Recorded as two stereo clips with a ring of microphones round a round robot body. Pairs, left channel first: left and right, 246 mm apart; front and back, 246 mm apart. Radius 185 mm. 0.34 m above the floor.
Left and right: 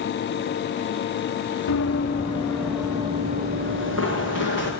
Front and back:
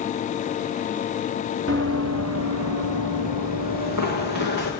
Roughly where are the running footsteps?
Behind left.